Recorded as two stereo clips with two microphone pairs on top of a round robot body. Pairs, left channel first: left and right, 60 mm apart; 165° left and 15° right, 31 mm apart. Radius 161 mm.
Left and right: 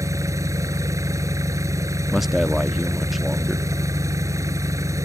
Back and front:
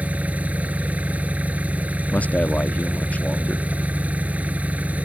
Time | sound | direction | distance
0.0 | an engine running | 60° right | ?
2.1 | a man speaking | 175° right | ?